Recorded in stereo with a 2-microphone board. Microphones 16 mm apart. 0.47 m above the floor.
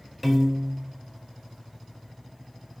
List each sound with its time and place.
0.2 s a piano: centre (ahead or behind), 1.2 m